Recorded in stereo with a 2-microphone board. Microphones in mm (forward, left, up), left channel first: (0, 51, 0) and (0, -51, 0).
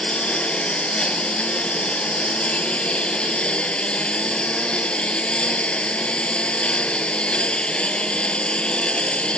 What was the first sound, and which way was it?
A lawn mower, 10° left (ahead or behind).